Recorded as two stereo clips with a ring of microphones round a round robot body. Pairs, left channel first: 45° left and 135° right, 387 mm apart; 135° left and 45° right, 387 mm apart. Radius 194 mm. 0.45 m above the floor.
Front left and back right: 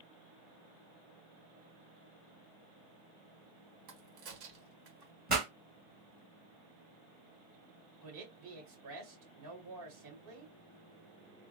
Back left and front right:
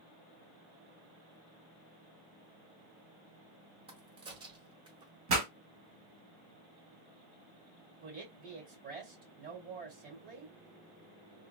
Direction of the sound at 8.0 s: 110° right.